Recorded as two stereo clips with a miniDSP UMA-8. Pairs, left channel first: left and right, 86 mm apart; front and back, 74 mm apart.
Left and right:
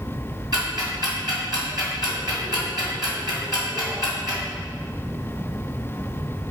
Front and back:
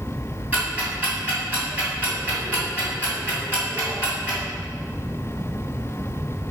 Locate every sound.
0.5 s ticking: 115° right, 3 m